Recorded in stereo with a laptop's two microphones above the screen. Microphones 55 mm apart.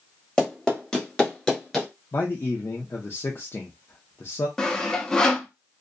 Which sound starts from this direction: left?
A man speaking, at 2.1 s.